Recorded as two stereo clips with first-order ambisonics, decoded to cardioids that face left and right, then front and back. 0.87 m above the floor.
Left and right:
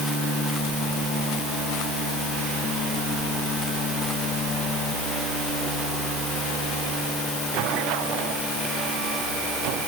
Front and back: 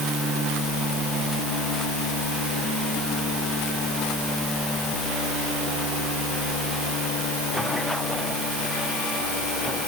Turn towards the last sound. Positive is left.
No sound to turn to.